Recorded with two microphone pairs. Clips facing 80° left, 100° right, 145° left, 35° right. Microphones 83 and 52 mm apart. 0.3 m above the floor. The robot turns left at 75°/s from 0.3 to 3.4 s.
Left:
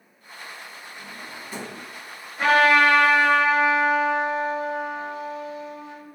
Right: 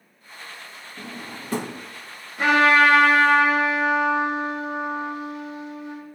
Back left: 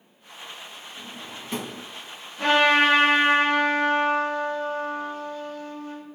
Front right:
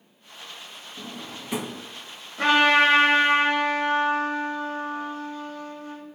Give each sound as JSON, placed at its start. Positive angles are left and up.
{"t": 1.0, "sound": "a drawer", "azimuth_deg": -70, "distance_m": 0.6}
{"t": 2.4, "sound": "a trumpet", "azimuth_deg": -25, "distance_m": 4.0}